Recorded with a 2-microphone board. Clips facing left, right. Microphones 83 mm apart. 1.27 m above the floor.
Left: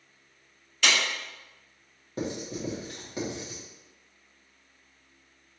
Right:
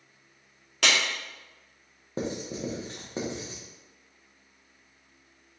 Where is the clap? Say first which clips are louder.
Even; 70° right (ahead or behind), 1.9 m.